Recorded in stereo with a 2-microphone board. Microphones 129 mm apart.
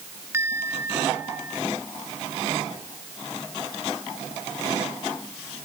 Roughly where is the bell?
Centre.